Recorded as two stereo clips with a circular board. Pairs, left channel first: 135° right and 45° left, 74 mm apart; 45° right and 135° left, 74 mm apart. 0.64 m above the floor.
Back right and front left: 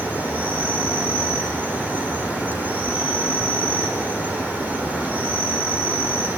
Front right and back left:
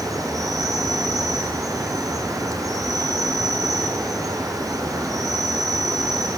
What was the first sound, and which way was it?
An insect, 110° left.